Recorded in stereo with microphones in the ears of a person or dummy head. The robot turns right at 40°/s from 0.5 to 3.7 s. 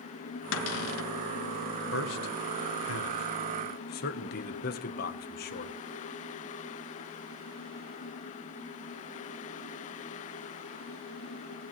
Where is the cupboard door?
80° left, 1.1 m; by 1.1 s 75° left (ahead or behind), 1.1 m.